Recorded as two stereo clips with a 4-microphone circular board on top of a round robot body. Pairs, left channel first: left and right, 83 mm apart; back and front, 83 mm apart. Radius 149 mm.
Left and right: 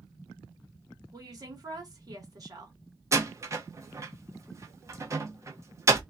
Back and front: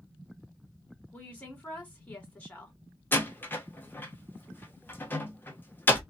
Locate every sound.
1.1 s a woman speaking: 110° right, 1.9 m
3.1 s a door slam: 125° right, 0.9 m